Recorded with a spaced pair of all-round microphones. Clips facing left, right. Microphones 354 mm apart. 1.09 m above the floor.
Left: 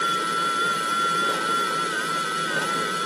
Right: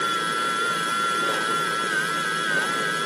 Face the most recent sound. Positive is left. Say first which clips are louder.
# even
turn(degrees=55)  # may be behind; listen again after turning